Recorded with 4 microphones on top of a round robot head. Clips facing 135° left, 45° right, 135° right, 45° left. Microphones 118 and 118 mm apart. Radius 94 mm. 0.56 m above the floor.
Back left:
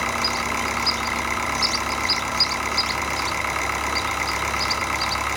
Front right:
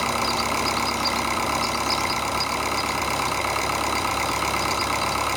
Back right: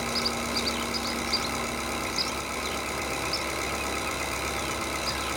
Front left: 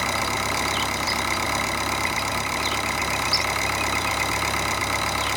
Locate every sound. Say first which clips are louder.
0.0 s an engine running: front right 2 dB, front left 5 dB; 20° left, 2 m